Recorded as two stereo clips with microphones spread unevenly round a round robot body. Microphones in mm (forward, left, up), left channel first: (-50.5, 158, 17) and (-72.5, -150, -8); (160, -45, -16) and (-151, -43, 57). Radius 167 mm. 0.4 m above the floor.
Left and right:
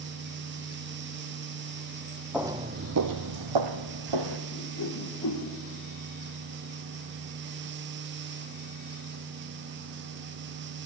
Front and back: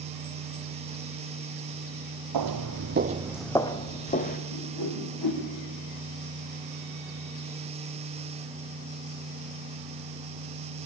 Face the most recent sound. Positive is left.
turn(degrees=35)